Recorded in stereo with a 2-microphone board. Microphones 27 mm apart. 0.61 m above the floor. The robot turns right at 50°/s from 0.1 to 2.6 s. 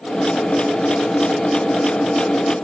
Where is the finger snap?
I don't hear a finger snap.